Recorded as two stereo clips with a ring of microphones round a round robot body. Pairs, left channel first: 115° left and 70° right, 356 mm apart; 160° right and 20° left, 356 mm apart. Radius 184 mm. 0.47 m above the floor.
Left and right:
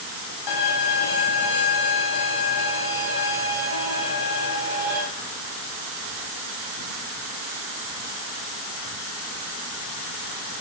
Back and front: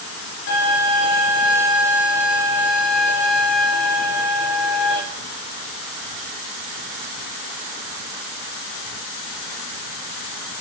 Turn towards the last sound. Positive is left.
turn(degrees=140)